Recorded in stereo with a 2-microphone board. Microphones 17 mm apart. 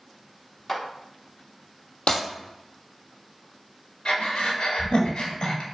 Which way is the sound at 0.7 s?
25° left (ahead or behind).